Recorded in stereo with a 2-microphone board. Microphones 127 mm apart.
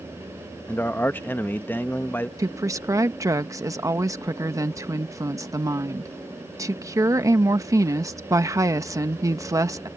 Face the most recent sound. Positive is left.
turn(degrees=-25)  # may be behind; listen again after turning